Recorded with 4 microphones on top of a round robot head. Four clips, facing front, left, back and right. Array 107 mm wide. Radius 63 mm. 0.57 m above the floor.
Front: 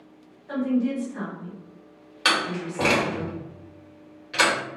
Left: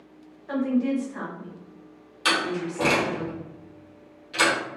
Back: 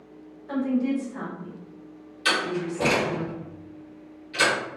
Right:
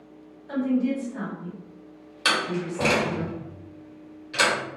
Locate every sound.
0.5 s a woman speaking: 100° left, 1.3 m
2.2 s a door slam: 15° right, 1.2 m